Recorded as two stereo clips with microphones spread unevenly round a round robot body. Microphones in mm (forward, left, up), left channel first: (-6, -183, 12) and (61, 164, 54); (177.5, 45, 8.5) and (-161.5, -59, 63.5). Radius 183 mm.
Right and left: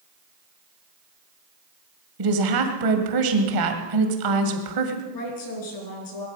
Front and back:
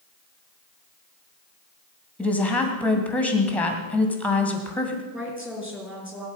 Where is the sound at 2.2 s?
95° left, 2 m.